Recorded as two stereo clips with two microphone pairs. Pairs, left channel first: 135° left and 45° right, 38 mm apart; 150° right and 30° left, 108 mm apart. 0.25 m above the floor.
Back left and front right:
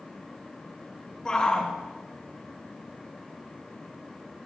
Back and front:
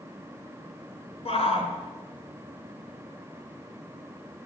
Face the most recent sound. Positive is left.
turn(degrees=-155)